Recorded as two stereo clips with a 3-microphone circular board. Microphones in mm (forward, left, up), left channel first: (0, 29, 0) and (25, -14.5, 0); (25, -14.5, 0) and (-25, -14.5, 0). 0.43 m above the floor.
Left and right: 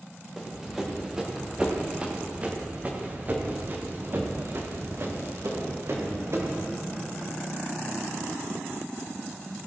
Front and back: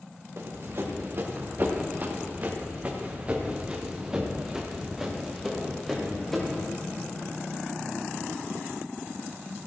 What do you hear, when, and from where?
0.4 s running footsteps: 145° right, 3 m; by 6.7 s 80° right, 3.5 m